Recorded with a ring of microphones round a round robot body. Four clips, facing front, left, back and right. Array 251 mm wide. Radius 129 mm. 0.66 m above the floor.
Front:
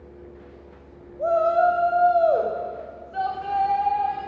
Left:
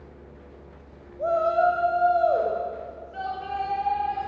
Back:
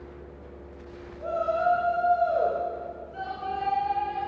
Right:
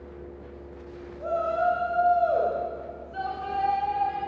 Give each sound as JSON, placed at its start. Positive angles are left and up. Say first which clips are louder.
{"t": 1.2, "sound": "a shout", "louder": "left 4 dB, front 7 dB", "azimuth_deg": 30, "distance_m": 4.0}